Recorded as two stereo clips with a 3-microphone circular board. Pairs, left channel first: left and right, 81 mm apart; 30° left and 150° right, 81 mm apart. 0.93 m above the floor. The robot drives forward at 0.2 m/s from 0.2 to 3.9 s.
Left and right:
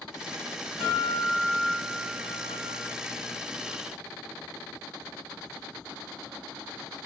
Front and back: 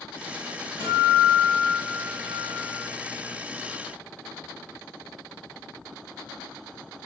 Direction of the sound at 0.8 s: 5° left.